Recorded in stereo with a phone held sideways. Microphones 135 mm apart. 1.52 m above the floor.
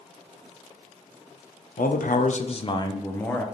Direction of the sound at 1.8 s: 85° left.